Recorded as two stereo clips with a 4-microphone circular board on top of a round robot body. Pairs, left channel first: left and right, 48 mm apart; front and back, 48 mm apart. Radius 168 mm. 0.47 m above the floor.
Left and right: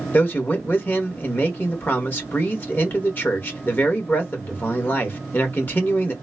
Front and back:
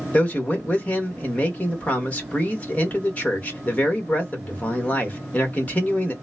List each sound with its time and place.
0.1 s a man speaking: 50° left, 1.5 m